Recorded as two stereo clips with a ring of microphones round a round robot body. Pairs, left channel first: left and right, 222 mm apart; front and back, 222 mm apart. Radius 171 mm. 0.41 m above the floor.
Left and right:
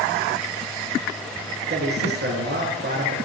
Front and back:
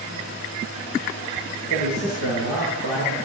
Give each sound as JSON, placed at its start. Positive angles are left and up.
{"t": 1.7, "sound": "a man speaking", "azimuth_deg": -50, "distance_m": 9.0}